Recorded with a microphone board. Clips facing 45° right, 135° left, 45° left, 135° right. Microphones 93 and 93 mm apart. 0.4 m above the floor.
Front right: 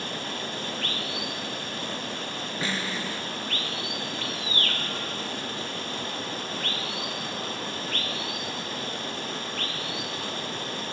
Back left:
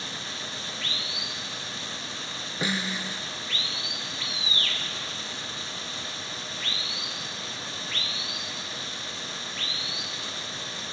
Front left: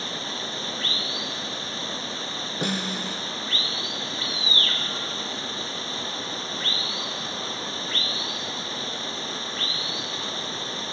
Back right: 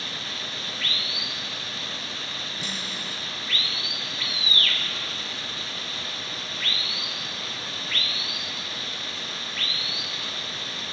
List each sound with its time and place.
0.0 s running water: 10° right
2.6 s a snare drum: 60° left